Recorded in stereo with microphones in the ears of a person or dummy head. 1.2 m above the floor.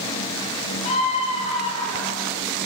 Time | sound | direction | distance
0.8 | a scream | 35° left (ahead or behind) | 7.5 m